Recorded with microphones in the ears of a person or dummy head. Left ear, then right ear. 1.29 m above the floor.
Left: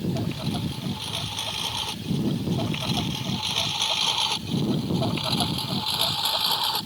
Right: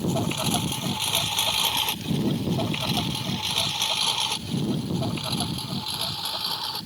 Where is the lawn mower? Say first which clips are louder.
Right 4 dB; 50° right (ahead or behind); by 6.9 s 25° left (ahead or behind).